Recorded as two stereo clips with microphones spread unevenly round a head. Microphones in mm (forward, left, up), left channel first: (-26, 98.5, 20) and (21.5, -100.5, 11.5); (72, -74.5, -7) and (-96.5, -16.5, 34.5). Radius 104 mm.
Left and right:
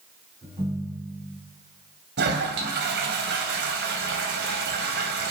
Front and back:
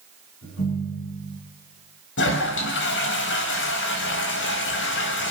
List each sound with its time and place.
0.4 s a ringtone: 10° right, 7.5 m
2.2 s a toilet flushing: 35° right, 2.5 m